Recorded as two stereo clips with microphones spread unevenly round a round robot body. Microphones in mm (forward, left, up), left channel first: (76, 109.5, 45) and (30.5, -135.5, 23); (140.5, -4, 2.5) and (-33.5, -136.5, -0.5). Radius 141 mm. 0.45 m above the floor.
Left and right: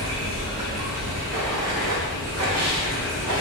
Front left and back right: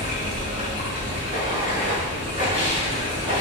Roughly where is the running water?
Behind right.